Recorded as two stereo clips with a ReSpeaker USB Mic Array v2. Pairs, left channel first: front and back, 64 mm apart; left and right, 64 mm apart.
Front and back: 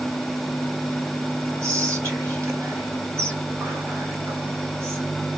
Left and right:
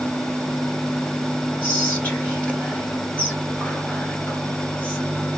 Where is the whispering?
145° left, 2 m.